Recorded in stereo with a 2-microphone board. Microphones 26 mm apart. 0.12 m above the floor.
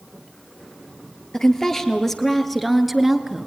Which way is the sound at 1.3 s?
30° left (ahead or behind).